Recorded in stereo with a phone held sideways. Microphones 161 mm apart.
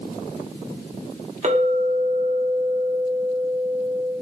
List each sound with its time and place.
1.4 s a clink: 45° right (ahead or behind), 0.9 m